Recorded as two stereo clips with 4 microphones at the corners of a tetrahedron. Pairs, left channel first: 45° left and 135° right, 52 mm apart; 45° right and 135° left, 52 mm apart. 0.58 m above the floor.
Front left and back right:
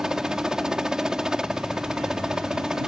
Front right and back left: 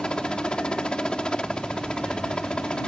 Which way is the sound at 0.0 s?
80° right.